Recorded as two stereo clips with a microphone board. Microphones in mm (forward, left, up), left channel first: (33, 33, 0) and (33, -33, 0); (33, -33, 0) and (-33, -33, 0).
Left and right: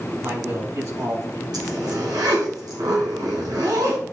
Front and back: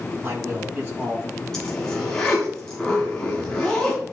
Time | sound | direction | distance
0.2 | a man speaking | 125° right | 5 m
1.5 | a zipper | 80° right | 2.5 m